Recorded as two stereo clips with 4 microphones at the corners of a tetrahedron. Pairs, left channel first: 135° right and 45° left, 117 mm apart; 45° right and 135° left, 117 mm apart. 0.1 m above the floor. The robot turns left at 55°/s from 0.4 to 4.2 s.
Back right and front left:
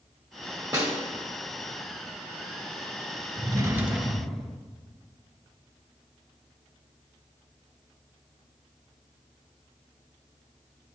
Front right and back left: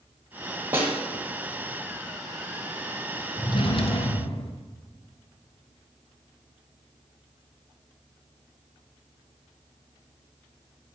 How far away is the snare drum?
About 1.4 m.